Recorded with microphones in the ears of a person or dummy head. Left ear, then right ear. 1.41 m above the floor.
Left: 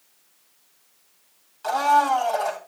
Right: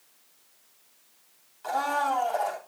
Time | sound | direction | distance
1.6 | a blender | 20° left (ahead or behind) | 2.5 m